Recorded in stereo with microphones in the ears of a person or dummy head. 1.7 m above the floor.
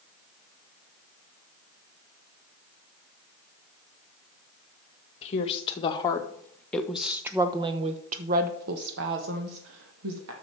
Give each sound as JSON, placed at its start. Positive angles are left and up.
{"t": 5.2, "sound": "a woman speaking", "side_deg": 30, "distance_m": 1.9}